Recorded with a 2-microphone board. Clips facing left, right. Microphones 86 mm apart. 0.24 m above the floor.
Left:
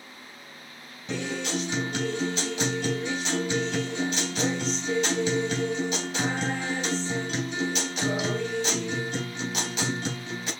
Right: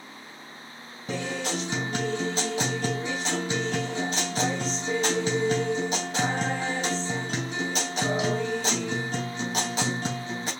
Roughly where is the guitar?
Right.